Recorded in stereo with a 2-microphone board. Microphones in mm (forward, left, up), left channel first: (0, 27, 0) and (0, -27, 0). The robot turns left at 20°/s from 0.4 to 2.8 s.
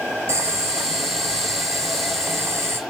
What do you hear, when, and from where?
0.3 s boiling: 80° right, 0.9 m; by 2.8 s 130° right, 0.9 m